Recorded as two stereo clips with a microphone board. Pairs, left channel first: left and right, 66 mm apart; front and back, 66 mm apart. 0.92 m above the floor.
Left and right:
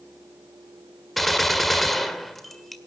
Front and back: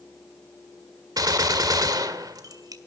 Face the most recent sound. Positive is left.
turn(degrees=180)